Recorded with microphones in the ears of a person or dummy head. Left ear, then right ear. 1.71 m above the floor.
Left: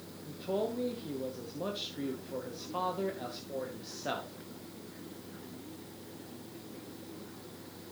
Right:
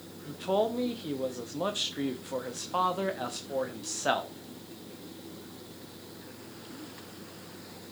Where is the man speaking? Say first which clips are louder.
Right 6 dB; 45° right (ahead or behind), 1.0 m.